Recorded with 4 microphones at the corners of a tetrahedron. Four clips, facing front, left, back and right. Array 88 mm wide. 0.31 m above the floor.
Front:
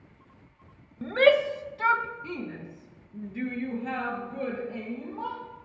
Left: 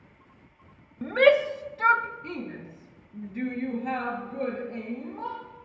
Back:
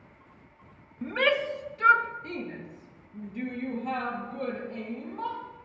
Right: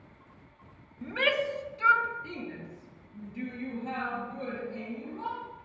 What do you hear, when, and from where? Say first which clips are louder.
1.0 s a shout: left 9 dB, front 5 dB; 60° left, 1.0 m; by 5.4 s 40° left, 7 m